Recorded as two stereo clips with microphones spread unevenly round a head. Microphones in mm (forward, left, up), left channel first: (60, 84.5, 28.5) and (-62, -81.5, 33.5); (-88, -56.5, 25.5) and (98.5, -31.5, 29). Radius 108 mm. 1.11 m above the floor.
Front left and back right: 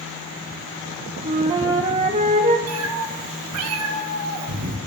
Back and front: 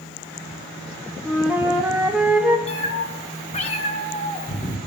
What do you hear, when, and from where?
1.2 s a flute: 75° right, 1.1 m
2.7 s a cat meowing: 115° right, 1.4 m